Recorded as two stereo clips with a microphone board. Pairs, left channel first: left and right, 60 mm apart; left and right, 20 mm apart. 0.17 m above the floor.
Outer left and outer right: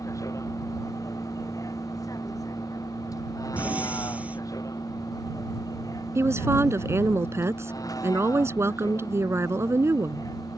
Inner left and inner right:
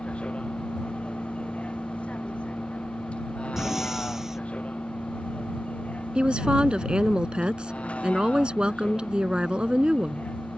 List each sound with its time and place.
0.0 s a vehicle: 65° left (ahead or behind); by 10.6 s 90° left
3.6 s breathing: 25° right (ahead or behind)
6.2 s a woman speaking: 50° right (ahead or behind)